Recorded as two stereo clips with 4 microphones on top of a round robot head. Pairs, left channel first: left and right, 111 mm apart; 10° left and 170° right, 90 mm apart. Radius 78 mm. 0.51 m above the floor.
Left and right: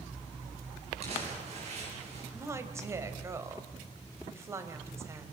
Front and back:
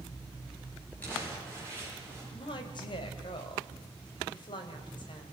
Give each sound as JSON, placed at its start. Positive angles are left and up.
{"t": 1.0, "sound": "crumpling", "azimuth_deg": -65, "distance_m": 8.0}
{"t": 2.3, "sound": "a woman speaking", "azimuth_deg": -25, "distance_m": 2.5}